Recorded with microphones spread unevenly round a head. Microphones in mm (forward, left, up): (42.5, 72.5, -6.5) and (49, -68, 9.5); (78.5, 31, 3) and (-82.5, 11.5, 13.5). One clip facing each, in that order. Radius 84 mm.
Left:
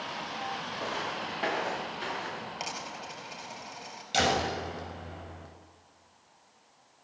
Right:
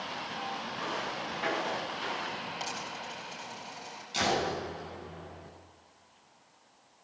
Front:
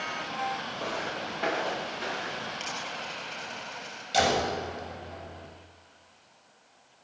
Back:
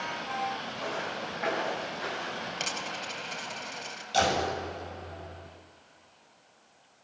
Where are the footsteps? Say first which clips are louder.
Left 2 dB, even; 50° left, 10 m; by 2.5 s 60° left, 10.5 m.